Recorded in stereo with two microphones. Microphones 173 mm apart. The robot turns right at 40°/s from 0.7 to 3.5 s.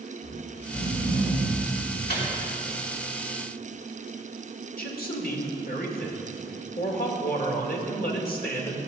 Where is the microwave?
70° left (ahead or behind), 3.5 m; by 2.2 s 75° left (ahead or behind), 3.5 m.